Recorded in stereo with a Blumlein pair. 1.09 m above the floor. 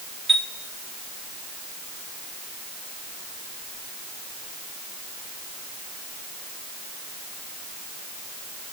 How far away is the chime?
About 1.8 m.